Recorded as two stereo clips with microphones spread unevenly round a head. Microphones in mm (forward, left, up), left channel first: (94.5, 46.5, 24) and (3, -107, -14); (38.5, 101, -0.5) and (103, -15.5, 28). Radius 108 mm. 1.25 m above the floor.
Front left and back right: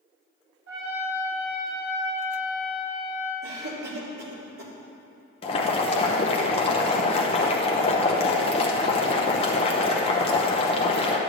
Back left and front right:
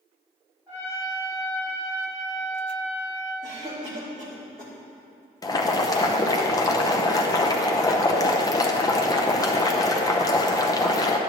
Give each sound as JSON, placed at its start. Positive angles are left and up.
{"t": 0.7, "sound": "a trumpet", "azimuth_deg": -140, "distance_m": 2.5}
{"t": 3.4, "sound": "a cough", "azimuth_deg": -135, "distance_m": 2.5}
{"t": 5.4, "sound": "boiling", "azimuth_deg": 120, "distance_m": 0.7}